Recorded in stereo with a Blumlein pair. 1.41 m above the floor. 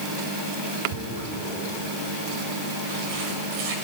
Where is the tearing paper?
50° right, 6.5 m.